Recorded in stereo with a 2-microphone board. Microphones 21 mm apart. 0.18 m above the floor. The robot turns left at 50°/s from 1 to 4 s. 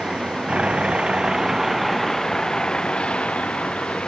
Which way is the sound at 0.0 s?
55° right (ahead or behind).